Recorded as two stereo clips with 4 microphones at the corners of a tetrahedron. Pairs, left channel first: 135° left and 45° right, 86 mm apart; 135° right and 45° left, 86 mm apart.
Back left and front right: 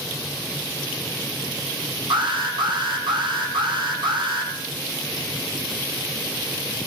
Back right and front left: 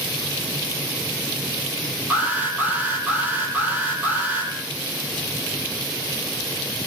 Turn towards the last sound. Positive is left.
turn(degrees=-25)